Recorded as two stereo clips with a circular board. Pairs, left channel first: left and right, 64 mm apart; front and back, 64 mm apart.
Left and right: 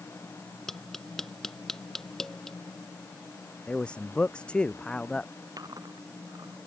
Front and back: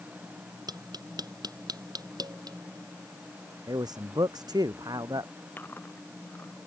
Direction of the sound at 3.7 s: 165° left.